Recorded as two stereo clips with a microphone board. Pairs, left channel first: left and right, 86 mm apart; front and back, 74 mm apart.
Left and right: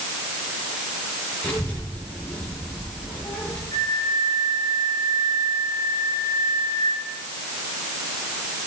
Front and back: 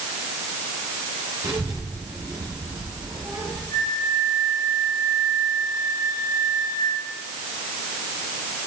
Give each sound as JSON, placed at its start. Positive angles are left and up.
{"t": 1.4, "sound": "a child speaking", "azimuth_deg": 165, "distance_m": 8.0}
{"t": 3.7, "sound": "a flute", "azimuth_deg": 40, "distance_m": 3.0}